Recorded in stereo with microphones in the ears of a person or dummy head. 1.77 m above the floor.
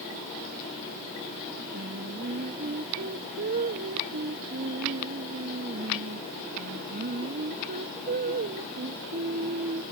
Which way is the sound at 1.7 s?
40° right (ahead or behind).